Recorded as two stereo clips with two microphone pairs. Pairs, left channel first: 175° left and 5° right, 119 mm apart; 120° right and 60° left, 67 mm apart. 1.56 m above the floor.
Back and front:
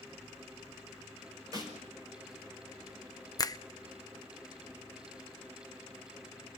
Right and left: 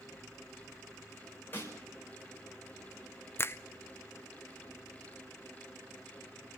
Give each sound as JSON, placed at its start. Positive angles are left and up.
{"t": 1.5, "sound": "a snare drum", "azimuth_deg": -65, "distance_m": 5.5}
{"t": 3.4, "sound": "a finger snap", "azimuth_deg": -150, "distance_m": 0.6}